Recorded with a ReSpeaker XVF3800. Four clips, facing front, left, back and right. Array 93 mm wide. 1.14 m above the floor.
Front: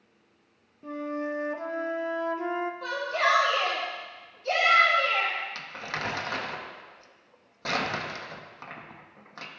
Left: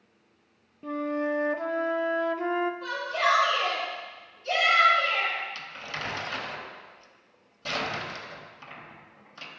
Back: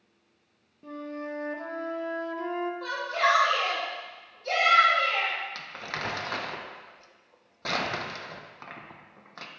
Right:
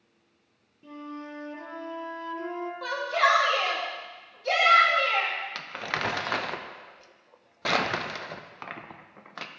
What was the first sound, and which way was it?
A flute, 80° left.